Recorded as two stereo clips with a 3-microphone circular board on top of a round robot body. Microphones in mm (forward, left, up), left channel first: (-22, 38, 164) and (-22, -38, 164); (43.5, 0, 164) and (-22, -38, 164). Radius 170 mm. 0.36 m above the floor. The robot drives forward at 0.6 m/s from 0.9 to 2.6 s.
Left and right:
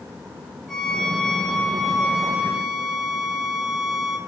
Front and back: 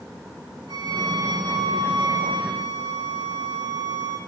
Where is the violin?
Straight behind, 2.5 m.